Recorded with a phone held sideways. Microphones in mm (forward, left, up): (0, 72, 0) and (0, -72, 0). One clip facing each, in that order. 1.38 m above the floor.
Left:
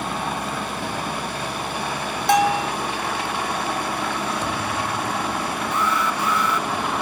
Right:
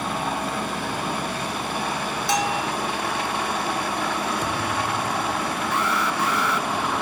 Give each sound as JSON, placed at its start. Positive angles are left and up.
{"t": 2.3, "sound": "a bell", "side_deg": 55}
{"t": 4.4, "sound": "a thud", "side_deg": -10}
{"t": 5.7, "sound": "an alarm", "side_deg": -70}